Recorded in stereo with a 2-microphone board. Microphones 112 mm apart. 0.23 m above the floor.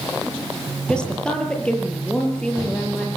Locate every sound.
0.9 s a woman speaking: 10° left (ahead or behind), 6.5 m